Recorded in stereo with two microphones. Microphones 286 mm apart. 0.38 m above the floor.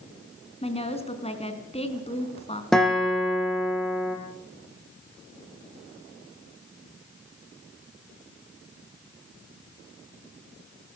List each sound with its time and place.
0.6 s a woman speaking: 20° left (ahead or behind), 3.5 m
2.7 s a guitar: centre (ahead or behind), 6.5 m